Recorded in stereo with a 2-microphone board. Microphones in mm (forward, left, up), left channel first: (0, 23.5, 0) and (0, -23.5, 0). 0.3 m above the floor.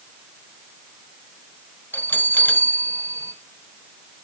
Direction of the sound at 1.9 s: 45° left (ahead or behind).